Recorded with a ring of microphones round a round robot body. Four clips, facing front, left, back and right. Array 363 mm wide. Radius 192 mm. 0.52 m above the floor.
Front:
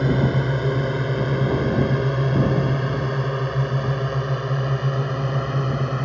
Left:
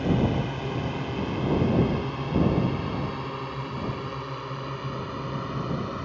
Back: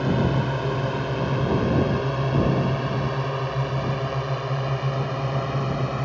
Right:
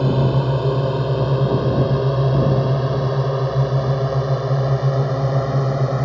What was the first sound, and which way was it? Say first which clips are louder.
A drone: right 6 dB, front 2 dB; 65° right.